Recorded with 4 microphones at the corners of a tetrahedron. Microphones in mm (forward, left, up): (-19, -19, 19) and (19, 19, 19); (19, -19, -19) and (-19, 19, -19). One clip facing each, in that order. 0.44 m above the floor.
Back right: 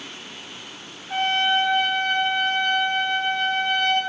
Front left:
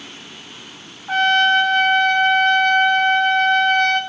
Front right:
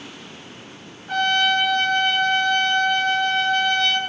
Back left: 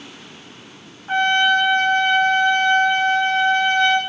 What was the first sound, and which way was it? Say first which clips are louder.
A trumpet: front left 7 dB, back left 3 dB; 70° left.